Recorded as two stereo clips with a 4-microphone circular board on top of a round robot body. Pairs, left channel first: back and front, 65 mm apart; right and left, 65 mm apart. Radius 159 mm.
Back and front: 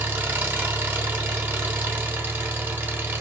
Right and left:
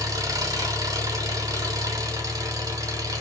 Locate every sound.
0.0 s an engine running: 60° left, 1.3 m